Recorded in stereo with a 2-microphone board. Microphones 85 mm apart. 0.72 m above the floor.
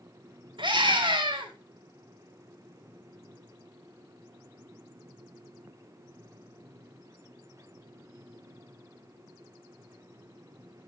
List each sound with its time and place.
0.6 s a scream: 75° right (ahead or behind), 3.5 m